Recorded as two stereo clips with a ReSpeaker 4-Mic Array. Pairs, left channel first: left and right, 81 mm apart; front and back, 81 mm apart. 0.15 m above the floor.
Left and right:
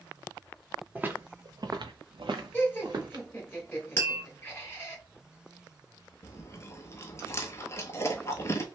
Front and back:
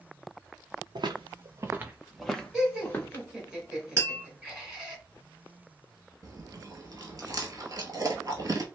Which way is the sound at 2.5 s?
105° left.